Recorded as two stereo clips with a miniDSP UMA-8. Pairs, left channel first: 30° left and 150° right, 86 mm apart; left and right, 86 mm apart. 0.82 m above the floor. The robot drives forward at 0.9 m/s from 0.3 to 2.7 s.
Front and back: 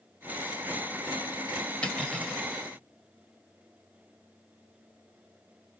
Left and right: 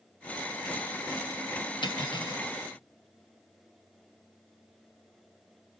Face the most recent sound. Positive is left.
turn(degrees=120)